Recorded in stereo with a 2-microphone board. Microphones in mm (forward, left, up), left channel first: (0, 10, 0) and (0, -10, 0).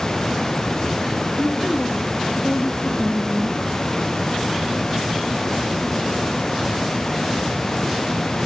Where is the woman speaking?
70° left (ahead or behind), 3.5 m; by 3.6 s 35° left (ahead or behind), 1.5 m.